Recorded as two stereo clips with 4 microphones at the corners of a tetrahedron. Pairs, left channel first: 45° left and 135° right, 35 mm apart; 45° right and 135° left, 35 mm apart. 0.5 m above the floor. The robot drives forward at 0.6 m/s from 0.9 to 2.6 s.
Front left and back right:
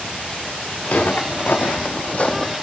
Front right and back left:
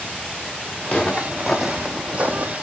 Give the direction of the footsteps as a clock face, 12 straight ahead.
11 o'clock.